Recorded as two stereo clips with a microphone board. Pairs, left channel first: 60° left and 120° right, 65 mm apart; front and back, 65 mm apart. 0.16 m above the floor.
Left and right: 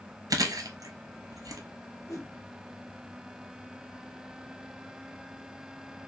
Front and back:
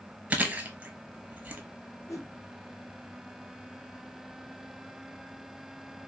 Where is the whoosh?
35° left, 1.4 m.